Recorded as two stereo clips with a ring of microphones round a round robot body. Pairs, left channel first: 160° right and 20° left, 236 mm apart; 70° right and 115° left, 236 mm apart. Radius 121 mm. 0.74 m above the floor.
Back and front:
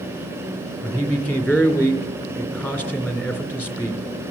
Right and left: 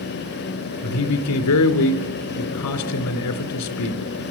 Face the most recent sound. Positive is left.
turn(degrees=-75)